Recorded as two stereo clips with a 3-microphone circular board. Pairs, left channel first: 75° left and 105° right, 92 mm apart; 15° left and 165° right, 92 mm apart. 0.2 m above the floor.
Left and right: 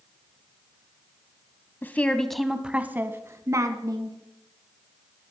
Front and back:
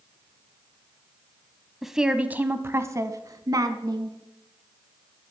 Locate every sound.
1.8 s a woman speaking: 110° left, 1.0 m; by 4.2 s 140° right, 1.7 m